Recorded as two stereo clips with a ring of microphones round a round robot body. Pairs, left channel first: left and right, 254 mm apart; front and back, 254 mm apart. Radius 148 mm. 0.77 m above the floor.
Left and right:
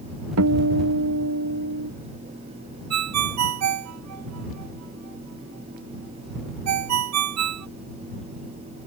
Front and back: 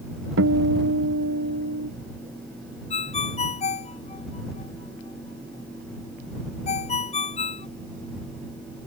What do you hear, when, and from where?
0.4 s a guitar: 130° right
2.9 s a ringtone: 70° right